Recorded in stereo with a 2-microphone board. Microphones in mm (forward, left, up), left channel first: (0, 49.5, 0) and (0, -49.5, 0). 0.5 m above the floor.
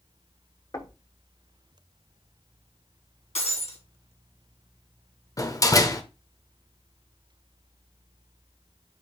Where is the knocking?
40° left (ahead or behind), 0.9 m.